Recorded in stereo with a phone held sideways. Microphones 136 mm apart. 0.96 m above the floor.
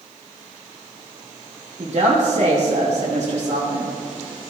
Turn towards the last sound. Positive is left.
turn(degrees=-55)  # may be behind; listen again after turning